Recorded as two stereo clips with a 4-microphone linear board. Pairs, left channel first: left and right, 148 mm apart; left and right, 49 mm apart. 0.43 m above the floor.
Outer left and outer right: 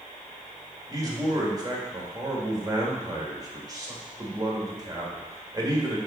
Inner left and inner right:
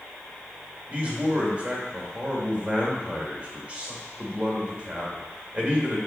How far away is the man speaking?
About 1.7 m.